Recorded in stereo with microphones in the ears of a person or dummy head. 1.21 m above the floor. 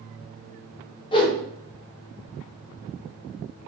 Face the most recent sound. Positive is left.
turn(degrees=25)  # may be behind; listen again after turning